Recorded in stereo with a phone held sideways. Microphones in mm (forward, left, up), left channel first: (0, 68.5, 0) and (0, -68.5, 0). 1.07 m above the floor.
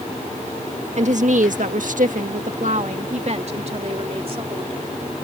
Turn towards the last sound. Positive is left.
turn(degrees=-40)  # may be behind; listen again after turning